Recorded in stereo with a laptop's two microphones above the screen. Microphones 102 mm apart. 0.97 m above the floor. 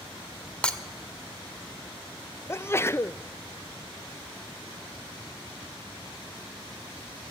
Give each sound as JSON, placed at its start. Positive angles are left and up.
{"t": 0.6, "sound": "breaking glass", "side_deg": 10, "distance_m": 1.4}
{"t": 2.5, "sound": "a sneeze", "side_deg": 25, "distance_m": 0.5}